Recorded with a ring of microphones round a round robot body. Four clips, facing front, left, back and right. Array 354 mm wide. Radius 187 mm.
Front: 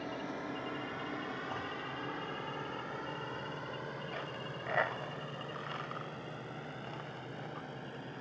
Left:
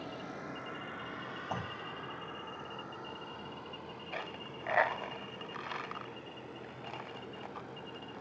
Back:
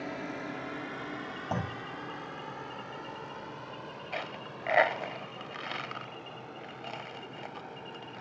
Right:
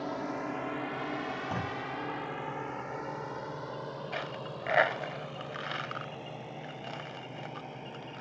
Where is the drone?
115° right; by 8.2 s 60° right.